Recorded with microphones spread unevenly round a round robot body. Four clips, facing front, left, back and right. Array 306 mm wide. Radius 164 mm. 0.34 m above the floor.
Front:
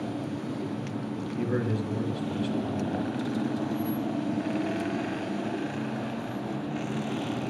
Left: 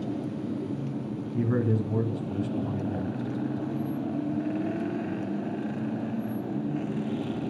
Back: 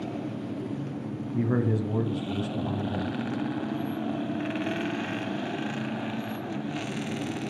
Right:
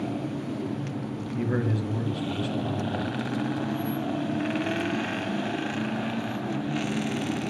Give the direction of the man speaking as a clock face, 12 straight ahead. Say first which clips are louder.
Left 2 dB, back 3 dB; 7 o'clock.